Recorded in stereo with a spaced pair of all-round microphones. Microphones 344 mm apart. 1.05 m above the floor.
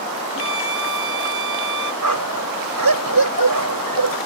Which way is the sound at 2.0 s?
75° right (ahead or behind).